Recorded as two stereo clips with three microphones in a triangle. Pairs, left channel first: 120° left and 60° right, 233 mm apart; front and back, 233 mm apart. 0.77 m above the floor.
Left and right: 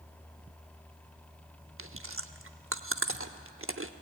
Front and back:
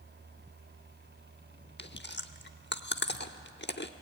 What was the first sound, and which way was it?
Chewing, 40° right.